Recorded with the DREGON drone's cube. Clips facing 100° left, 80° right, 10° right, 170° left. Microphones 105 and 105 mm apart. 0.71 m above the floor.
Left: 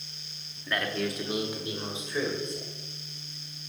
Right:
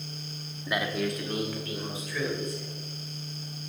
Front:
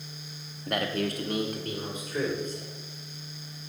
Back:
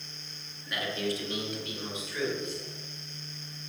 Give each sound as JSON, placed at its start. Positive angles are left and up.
{"t": 0.7, "sound": "a man speaking", "azimuth_deg": -10, "distance_m": 1.2}